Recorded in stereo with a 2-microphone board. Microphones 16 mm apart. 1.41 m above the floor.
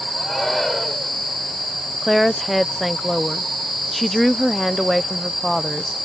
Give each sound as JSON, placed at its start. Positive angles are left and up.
{"t": 0.2, "sound": "a shout", "side_deg": 25}
{"t": 2.0, "sound": "a woman speaking", "side_deg": 0}